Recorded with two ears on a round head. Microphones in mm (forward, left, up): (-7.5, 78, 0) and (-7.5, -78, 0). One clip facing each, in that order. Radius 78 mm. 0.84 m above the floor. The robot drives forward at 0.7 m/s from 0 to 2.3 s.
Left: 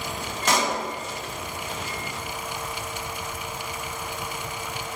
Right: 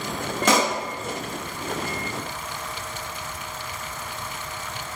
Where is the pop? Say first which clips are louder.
Right 3 dB; 65° right (ahead or behind), 0.7 m.